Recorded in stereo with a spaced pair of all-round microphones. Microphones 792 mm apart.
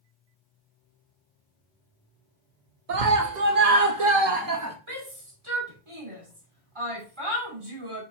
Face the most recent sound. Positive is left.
turn(degrees=-40)  # may be behind; listen again after turning